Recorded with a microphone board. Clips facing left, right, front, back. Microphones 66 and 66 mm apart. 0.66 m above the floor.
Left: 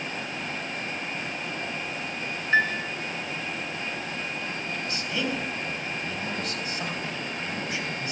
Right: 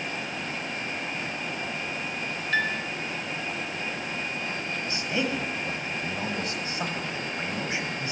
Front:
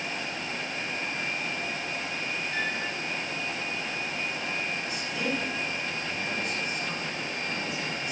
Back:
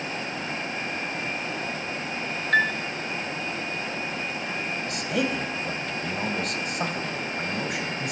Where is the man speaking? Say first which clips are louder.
Right 2 dB, back 7 dB; 155° right, 4 m.